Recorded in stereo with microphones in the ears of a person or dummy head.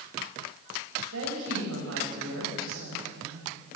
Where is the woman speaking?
85° right, 8.5 m.